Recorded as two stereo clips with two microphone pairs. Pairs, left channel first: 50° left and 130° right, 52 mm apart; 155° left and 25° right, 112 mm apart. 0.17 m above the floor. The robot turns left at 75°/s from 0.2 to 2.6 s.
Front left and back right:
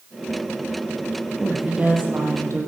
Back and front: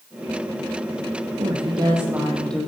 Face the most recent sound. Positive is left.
turn(degrees=-135)